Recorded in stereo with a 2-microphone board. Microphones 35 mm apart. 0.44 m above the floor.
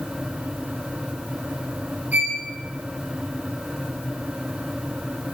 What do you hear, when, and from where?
2.1 s a violin: 55° right (ahead or behind), 1.8 m